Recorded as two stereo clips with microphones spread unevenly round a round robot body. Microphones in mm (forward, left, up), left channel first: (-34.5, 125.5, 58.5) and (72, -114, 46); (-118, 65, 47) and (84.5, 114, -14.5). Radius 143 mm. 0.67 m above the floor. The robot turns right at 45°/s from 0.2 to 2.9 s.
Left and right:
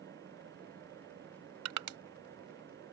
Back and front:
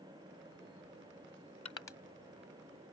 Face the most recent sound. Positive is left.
turn(degrees=-40)